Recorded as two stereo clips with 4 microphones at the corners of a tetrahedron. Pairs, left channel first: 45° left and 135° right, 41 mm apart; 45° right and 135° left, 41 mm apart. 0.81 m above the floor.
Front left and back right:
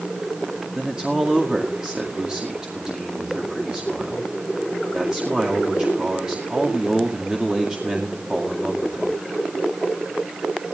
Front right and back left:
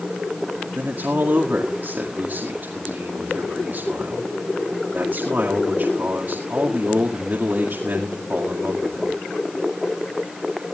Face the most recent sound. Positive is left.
turn(degrees=160)